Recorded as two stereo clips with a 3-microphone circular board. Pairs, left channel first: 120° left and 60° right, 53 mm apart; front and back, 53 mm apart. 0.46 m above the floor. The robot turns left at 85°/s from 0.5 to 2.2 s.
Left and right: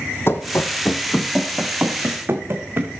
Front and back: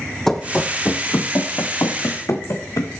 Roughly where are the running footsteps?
Left.